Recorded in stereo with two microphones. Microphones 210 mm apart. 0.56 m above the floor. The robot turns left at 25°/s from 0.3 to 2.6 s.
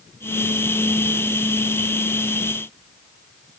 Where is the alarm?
No alarm in this recording.